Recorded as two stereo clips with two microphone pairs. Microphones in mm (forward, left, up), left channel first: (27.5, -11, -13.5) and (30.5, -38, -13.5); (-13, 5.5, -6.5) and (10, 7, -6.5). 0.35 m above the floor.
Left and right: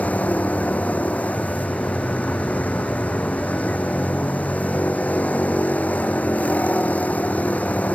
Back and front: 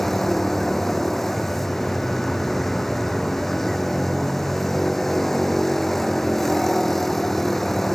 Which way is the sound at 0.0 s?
105° left.